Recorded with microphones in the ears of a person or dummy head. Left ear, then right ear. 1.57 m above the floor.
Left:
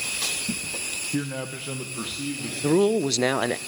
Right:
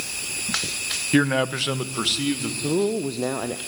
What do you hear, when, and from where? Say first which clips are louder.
1.1 s a man speaking: right 10 dB; 40° right (ahead or behind), 0.6 m
2.6 s a man speaking: left 4 dB; 70° left (ahead or behind), 0.7 m